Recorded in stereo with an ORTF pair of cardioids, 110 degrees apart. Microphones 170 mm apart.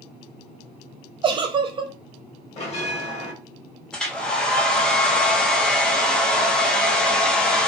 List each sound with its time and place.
1.2 s a giggle: 30° right, 0.5 m
2.6 s a bell: 40° left, 1.1 m
3.9 s a hair dryer: 5° left, 0.7 m